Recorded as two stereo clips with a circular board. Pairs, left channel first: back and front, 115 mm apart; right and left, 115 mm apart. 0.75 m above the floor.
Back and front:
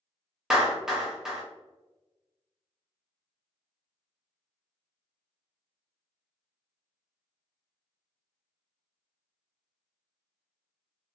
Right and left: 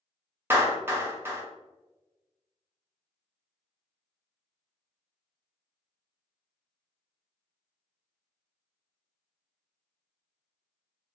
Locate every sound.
0.5 s a clap: 75° left, 0.8 m